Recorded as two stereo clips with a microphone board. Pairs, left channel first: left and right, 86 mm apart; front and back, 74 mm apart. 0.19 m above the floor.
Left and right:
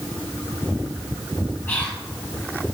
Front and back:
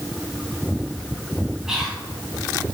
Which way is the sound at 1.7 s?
110° left.